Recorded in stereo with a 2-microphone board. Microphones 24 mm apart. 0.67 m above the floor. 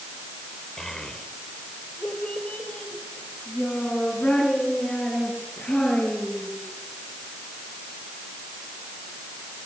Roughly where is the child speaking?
Left.